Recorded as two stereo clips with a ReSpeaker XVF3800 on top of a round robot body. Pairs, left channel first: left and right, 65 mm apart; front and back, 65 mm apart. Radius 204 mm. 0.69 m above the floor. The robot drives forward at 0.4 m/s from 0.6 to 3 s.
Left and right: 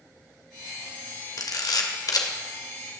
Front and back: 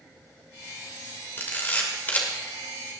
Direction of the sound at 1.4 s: 60° left.